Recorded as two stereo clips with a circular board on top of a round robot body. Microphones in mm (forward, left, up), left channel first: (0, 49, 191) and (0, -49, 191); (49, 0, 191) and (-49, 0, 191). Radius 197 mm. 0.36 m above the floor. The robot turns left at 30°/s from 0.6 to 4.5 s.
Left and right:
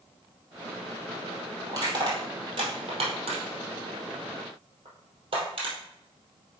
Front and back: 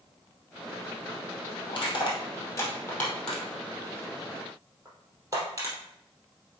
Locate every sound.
1.7 s crushing: 40° right, 2.5 m; by 5.8 s 120° right, 2.5 m